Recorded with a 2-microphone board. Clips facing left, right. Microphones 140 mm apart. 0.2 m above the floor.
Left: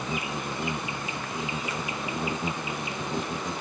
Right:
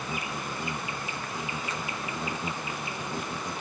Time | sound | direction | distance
0.0 | an insect | 20° left (ahead or behind) | ?